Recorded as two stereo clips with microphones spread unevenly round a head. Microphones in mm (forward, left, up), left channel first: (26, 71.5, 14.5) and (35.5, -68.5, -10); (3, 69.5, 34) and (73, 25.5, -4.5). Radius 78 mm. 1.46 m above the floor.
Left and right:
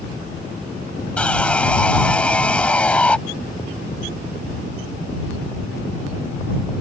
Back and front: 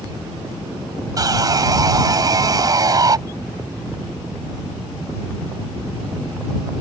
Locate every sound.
1.2 s sawing: 15° left